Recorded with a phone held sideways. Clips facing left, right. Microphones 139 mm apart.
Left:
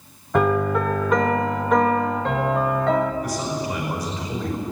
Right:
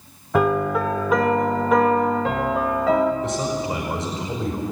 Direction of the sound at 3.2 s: 25° right (ahead or behind).